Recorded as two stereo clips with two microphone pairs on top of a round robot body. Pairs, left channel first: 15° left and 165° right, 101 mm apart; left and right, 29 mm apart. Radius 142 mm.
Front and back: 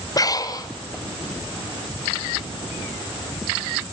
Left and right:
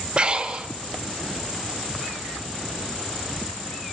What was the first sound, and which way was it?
Breathing, 35° right.